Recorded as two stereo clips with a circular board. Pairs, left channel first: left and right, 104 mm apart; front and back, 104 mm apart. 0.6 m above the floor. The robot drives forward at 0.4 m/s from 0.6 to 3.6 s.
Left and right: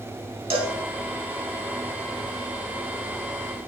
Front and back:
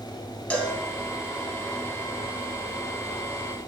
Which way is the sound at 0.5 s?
75° right.